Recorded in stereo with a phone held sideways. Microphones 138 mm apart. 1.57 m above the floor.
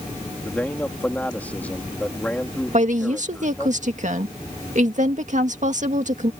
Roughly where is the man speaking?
Centre.